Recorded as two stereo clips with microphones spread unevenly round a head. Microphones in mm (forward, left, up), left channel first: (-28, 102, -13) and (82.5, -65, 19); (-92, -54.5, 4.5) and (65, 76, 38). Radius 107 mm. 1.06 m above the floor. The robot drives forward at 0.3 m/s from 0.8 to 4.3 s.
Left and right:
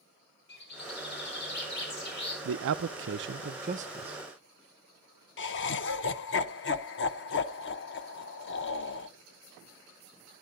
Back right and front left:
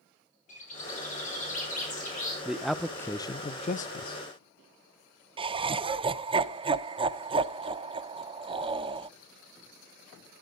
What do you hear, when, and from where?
0.5 s a bird: 165° left, 6 m
2.5 s a man speaking: 50° right, 0.5 m; by 4.2 s 125° right, 0.5 m
5.4 s laughter: 110° left, 0.8 m